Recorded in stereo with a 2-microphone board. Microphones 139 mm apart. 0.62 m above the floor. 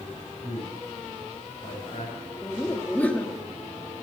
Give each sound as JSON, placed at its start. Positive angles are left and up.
{"t": 0.4, "sound": "a man speaking", "side_deg": 60, "distance_m": 3.5}
{"t": 2.4, "sound": "laughter", "side_deg": 10, "distance_m": 1.2}